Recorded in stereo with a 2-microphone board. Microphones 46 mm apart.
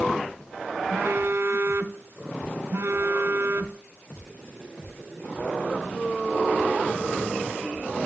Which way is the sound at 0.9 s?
80° right.